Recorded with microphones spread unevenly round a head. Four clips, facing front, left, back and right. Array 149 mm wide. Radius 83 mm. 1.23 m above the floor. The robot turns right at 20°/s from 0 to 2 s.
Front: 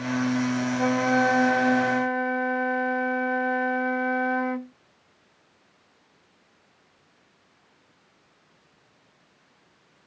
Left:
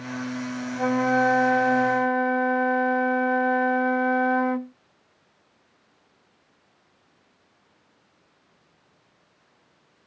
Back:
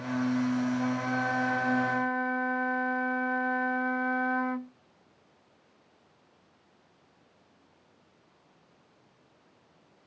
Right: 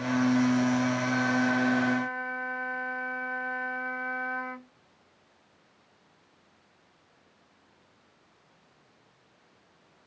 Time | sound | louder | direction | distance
0.8 | a flute | left 6 dB, front 7 dB | 55° left | ?